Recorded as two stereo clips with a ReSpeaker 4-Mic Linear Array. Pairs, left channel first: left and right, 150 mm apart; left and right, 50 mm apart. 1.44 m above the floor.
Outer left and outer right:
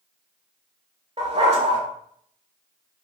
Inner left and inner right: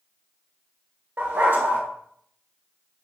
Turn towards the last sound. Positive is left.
turn(degrees=-45)  # may be behind; listen again after turning